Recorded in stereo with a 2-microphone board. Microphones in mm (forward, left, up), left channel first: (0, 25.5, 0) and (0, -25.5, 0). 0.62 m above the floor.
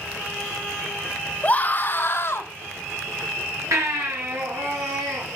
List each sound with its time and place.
1.4 s a scream: 25° left (ahead or behind), 1.0 m; by 2.5 s 50° left (ahead or behind), 1.4 m
3.7 s a baby crying: 80° right, 4.5 m